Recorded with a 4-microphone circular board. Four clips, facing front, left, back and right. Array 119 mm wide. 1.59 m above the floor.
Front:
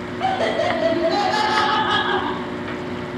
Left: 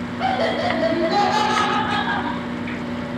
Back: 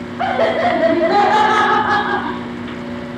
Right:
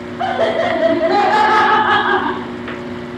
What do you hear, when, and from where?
0.2 s laughter: 145° right, 1.6 m; by 2.8 s 70° right, 0.7 m